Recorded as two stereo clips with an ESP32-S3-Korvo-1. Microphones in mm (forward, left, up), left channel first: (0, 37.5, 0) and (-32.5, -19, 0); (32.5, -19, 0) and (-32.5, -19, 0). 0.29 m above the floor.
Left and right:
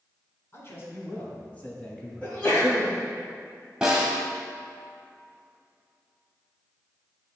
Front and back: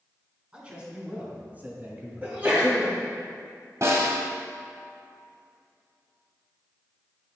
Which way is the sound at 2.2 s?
125° left.